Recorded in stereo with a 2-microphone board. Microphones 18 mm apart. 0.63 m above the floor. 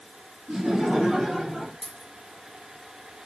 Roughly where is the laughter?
Right.